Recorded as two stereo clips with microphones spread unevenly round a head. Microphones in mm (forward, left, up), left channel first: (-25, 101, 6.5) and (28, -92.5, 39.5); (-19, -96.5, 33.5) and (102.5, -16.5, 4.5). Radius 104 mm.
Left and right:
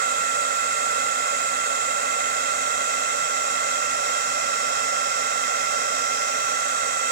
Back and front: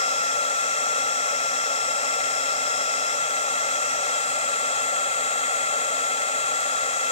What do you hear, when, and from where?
0.0 s a fan: 115° right